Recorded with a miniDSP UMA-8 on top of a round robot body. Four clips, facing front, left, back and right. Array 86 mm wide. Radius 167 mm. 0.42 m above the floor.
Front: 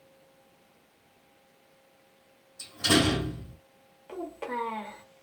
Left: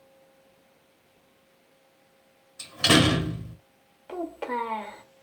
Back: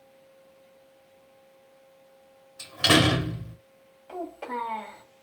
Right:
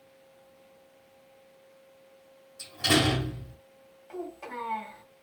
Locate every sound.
2.6 s a door slam: 135° left, 1.3 m
4.1 s a child speaking: 75° left, 1.9 m